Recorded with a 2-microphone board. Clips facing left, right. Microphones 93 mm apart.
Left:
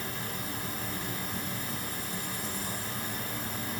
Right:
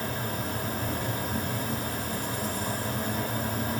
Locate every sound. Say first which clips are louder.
0.0 s an insect: right 6 dB; 60° right (ahead or behind), 2 m